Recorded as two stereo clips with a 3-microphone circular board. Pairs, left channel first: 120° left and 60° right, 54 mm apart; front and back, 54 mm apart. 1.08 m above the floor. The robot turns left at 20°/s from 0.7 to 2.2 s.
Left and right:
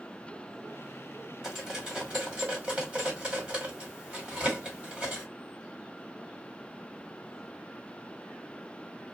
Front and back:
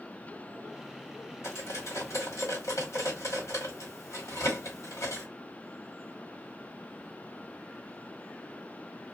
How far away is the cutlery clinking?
About 1.4 m.